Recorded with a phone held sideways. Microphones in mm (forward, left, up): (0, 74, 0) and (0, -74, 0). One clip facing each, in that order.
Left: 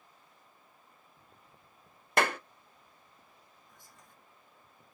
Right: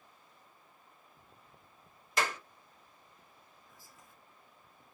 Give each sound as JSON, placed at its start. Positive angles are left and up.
{"t": 2.2, "sound": "a clap", "side_deg": 60, "distance_m": 0.6}
{"t": 3.7, "sound": "whispering", "side_deg": -5, "distance_m": 0.9}